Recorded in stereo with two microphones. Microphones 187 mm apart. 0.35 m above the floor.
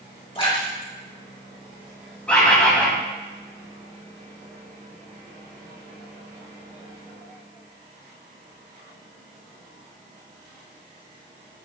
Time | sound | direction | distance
0.3 | a splash | 30° left (ahead or behind) | 3.5 m
2.3 | a bird | 5° left (ahead or behind) | 2.5 m